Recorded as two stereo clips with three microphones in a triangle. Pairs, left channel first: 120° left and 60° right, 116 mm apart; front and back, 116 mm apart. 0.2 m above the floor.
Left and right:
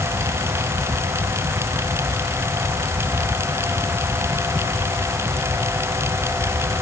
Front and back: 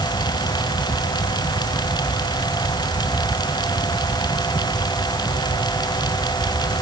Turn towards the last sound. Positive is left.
No sound to turn to.